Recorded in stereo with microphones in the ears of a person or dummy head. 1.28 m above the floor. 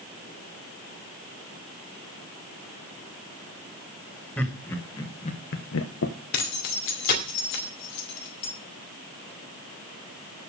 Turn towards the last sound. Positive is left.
turn(degrees=55)  # may be behind; listen again after turning